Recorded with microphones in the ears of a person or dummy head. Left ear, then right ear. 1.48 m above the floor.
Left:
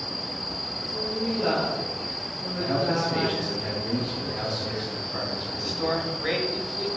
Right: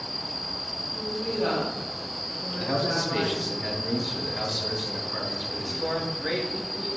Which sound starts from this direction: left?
A man speaking, at 5.6 s.